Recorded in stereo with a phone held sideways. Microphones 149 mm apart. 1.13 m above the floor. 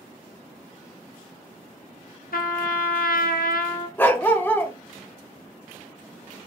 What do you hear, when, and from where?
2.3 s a trumpet: 80° left, 0.9 m
4.0 s a dog barking: 15° left (ahead or behind), 0.8 m